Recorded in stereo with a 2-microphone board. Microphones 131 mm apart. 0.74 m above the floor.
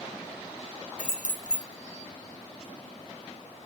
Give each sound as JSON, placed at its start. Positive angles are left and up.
{"t": 1.0, "sound": "keys jangling", "side_deg": 70, "distance_m": 0.7}